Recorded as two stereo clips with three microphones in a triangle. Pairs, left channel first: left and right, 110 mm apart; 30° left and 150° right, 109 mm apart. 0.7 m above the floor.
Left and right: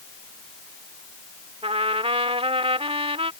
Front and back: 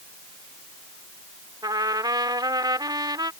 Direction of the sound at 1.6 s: 105° right.